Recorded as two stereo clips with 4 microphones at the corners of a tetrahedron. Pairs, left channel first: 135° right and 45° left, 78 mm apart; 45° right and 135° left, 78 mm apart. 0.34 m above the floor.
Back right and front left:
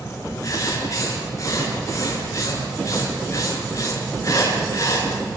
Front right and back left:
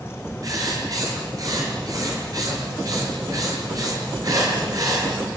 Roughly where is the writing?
Behind.